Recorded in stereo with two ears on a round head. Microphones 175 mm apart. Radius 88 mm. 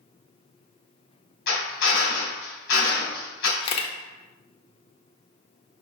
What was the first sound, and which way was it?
A drill, 70° left (ahead or behind).